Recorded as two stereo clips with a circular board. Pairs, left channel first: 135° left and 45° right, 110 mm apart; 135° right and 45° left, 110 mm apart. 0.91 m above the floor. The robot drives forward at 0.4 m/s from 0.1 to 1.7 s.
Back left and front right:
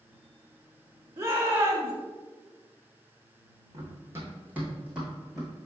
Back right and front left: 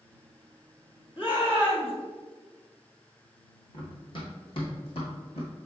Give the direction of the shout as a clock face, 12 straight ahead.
4 o'clock.